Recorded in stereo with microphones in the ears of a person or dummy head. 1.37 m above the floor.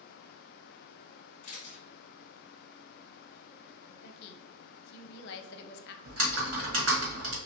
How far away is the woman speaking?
About 0.6 m.